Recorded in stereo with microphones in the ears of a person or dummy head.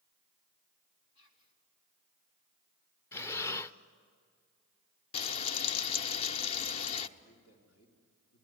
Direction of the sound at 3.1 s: 10° left (ahead or behind).